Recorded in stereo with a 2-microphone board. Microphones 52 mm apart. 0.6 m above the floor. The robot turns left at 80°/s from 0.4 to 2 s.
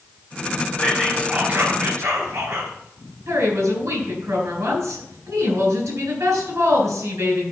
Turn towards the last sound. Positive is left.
turn(degrees=-80)